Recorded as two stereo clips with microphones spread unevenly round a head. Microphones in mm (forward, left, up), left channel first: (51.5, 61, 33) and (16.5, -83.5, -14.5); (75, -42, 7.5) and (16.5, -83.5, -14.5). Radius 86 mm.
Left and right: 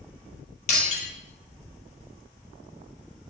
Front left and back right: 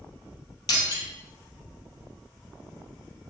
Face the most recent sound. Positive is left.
turn(degrees=50)